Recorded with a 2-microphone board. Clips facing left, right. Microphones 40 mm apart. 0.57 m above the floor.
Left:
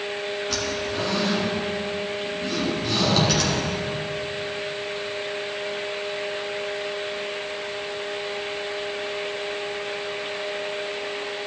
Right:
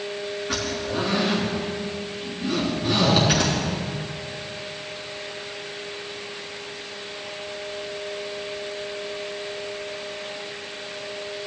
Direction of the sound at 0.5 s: 15° right (ahead or behind).